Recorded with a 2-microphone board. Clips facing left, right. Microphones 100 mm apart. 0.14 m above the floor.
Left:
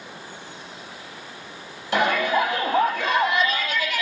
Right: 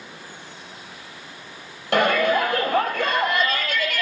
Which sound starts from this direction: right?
A shout, at 1.9 s.